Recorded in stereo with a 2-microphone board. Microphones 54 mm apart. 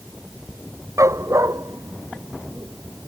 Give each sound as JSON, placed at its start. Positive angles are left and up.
{"t": 1.0, "sound": "a dog barking", "side_deg": -70}